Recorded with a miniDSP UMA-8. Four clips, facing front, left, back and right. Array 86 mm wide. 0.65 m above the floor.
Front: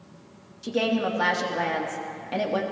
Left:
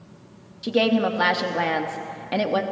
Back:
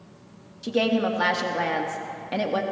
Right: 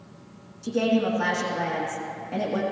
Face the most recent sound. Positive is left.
turn(degrees=100)